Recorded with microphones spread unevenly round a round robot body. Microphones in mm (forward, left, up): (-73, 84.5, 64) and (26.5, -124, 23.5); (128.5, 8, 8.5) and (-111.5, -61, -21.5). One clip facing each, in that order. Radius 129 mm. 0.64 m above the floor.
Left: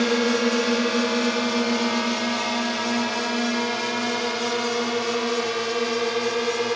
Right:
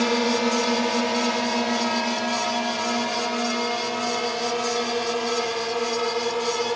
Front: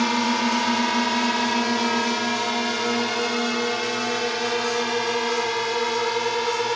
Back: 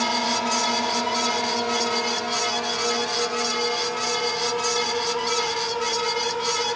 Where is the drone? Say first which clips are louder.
Left 1 dB, front 5 dB; 35° left; by 6.8 s 50° left.